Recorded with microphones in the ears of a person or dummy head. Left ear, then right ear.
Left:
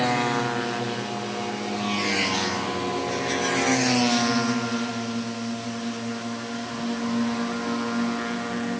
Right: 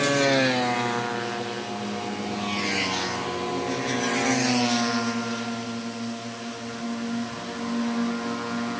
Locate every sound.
Only background noise.